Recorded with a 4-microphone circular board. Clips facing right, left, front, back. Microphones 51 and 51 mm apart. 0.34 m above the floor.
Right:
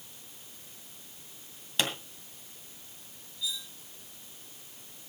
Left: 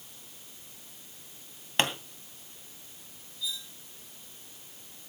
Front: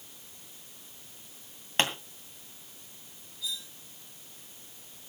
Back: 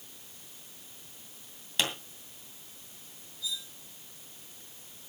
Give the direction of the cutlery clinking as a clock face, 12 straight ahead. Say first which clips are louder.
Right 1 dB, even; 12 o'clock.